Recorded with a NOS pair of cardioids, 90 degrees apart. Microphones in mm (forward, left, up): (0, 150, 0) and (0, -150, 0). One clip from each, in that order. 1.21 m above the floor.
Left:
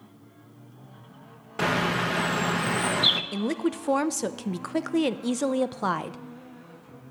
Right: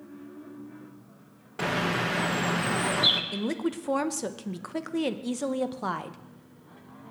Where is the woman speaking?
20° left, 0.6 m.